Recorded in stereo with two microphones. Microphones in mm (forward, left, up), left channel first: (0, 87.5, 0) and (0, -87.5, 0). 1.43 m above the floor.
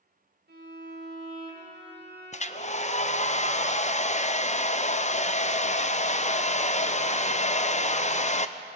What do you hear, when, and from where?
0.5 s a violin: 80° right, 5 m
2.3 s a hair dryer: 40° left (ahead or behind), 0.7 m